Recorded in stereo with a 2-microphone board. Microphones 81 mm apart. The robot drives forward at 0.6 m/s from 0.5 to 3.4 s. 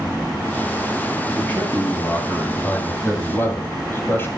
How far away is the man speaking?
About 3.5 m.